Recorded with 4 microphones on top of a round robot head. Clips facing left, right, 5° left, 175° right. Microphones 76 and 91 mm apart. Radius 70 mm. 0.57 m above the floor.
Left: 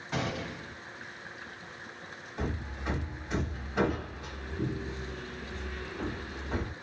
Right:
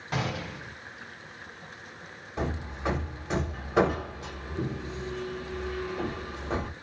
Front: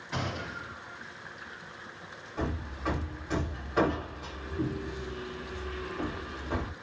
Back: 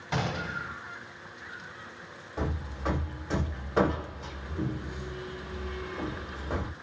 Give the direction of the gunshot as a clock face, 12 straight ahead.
5 o'clock.